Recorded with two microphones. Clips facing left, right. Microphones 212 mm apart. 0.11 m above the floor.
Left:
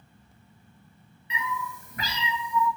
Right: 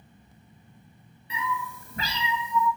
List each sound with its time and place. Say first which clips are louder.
1.3 s a cat meowing: right 1 dB; 40° right (ahead or behind), 0.9 m; by 2.7 s 20° right (ahead or behind), 1.4 m